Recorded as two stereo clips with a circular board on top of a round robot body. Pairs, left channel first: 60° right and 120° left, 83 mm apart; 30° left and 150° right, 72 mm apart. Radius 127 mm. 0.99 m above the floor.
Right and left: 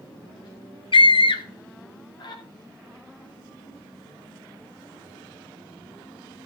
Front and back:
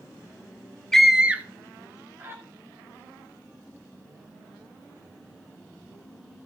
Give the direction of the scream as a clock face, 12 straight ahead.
2 o'clock.